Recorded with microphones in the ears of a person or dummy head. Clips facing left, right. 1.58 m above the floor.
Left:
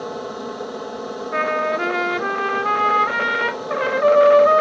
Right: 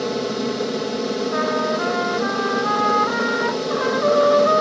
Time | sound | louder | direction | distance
0.0 | an aircraft | right 6 dB | 40° right (ahead or behind) | ?
1.3 | a trumpet | right 1 dB | 40° left (ahead or behind) | ?